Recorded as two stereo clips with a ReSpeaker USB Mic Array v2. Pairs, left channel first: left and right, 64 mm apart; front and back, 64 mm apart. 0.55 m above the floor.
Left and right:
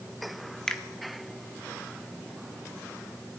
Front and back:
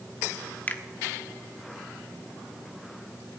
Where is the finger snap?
25° left, 1.1 m.